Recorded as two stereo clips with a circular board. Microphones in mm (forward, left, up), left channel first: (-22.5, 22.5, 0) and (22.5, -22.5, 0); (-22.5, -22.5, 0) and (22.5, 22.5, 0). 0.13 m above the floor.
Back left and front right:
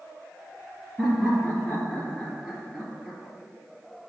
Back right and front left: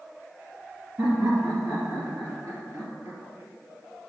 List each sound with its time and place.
1.0 s laughter: 35° left, 3 m